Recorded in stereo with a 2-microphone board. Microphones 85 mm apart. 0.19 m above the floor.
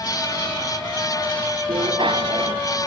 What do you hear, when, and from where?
1.7 s a bicycle bell: 70° right (ahead or behind)